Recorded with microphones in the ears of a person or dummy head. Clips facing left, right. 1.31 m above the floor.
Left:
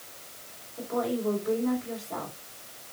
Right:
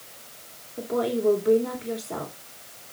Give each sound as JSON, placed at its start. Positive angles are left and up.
{"t": 0.8, "sound": "a woman speaking", "side_deg": -55, "distance_m": 3.0}